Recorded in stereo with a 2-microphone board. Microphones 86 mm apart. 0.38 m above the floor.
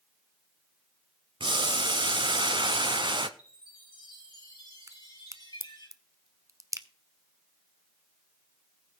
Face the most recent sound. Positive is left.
turn(degrees=-45)  # may be behind; listen again after turning